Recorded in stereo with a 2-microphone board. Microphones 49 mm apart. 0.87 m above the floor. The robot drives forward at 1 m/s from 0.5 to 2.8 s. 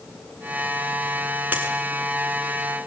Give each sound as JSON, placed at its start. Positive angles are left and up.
{"t": 1.5, "sound": "a dropped coin", "side_deg": -35, "distance_m": 5.0}